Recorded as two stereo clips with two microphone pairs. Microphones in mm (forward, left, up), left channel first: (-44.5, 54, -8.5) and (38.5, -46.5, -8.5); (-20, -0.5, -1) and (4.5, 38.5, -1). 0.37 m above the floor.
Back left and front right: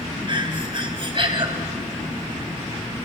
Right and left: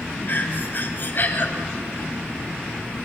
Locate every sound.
0.3 s breathing: 90° right, 2.5 m